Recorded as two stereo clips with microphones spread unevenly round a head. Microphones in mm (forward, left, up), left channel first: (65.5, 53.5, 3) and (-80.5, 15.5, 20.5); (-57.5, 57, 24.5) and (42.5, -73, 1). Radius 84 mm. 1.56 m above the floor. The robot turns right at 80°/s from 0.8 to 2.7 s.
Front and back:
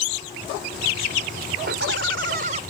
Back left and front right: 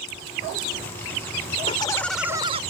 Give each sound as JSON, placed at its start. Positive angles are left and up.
{"t": 1.7, "sound": "laughter", "azimuth_deg": 180}